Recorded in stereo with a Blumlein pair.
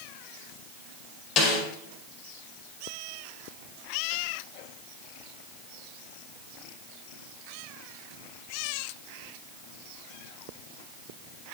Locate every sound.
1.4 s a snare drum: 35° left, 5 m